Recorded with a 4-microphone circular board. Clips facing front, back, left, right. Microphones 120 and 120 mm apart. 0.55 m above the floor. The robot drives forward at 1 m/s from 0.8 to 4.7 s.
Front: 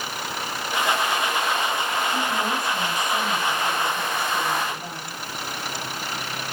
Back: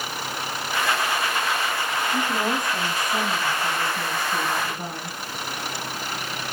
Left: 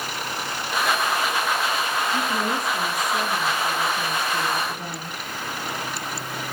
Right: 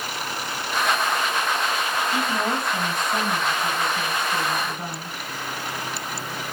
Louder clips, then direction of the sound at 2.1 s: Back 1 dB, even; 100° right.